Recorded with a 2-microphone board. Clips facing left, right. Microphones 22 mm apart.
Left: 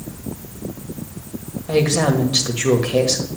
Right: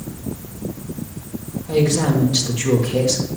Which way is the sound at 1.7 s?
55° left (ahead or behind).